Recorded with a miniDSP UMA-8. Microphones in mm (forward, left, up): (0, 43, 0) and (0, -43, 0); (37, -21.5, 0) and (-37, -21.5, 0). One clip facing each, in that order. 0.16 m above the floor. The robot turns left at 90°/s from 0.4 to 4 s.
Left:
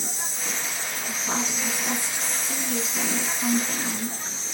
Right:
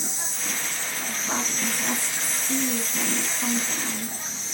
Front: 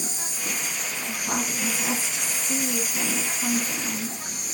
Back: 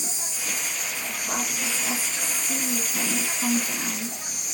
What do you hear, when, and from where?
0.0 s an insect: 5° right, 1.8 m; by 4.6 s 30° left, 1.8 m
1.1 s a woman speaking: 40° left, 2.0 m; by 4.2 s 135° left, 2.0 m